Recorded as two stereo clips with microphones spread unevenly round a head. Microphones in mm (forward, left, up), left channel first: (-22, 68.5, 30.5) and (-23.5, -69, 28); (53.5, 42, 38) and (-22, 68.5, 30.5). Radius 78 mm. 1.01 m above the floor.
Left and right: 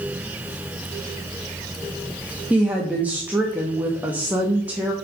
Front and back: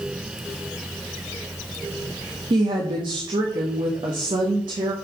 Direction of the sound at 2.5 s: 170° right.